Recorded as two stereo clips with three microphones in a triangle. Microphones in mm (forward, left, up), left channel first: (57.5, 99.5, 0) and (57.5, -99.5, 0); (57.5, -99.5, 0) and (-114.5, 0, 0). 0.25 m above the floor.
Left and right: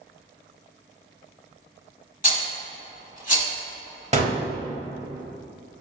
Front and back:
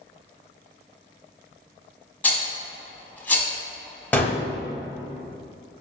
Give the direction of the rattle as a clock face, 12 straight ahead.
10 o'clock.